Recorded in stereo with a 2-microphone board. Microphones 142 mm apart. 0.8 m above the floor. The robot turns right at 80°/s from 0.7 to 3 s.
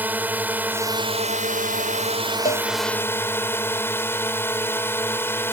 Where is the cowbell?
80° left; by 2.7 s 60° left (ahead or behind).